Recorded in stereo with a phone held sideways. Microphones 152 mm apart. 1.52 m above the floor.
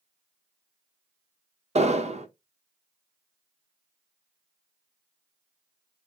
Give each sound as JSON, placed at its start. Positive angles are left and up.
{"t": 1.8, "sound": "an explosion", "side_deg": -45, "distance_m": 0.9}